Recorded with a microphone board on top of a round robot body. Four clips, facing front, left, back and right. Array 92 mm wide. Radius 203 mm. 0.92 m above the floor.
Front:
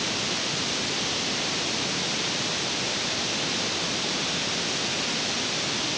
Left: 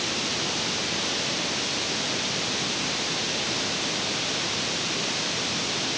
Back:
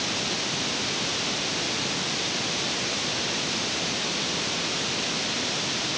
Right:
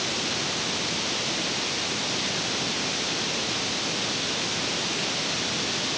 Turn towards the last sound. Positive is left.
No sound to turn to.